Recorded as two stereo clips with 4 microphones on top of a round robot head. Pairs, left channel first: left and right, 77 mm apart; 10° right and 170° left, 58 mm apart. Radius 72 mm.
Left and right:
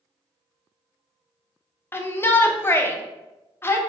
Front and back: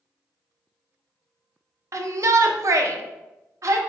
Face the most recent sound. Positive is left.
turn(degrees=150)